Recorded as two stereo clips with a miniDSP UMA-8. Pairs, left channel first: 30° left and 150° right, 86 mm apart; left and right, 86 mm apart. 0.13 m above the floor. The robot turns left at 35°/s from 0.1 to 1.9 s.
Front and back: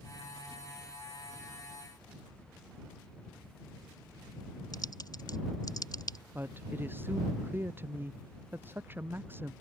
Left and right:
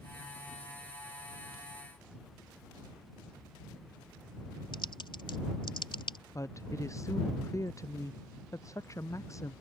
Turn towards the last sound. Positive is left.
turn(degrees=145)